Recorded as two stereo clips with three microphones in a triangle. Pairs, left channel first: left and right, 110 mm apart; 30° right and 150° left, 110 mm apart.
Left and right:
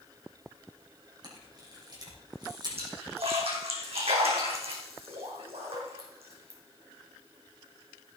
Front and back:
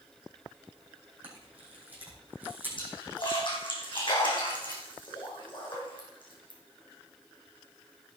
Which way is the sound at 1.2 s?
135° right.